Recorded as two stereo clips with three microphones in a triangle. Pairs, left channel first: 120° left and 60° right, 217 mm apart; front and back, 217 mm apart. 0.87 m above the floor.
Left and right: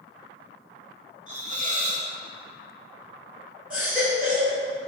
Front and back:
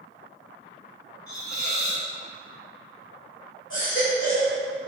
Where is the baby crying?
25° left, 1.9 m.